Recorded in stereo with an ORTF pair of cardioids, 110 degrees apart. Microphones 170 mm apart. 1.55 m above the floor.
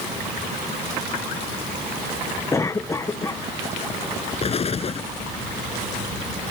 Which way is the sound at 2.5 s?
20° left.